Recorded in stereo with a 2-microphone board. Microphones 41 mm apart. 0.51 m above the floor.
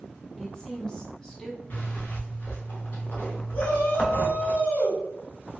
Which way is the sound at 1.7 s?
45° left (ahead or behind).